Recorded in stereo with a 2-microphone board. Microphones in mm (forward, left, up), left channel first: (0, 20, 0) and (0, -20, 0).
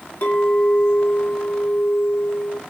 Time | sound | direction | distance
0.2 | a clink | 80° left | 3 m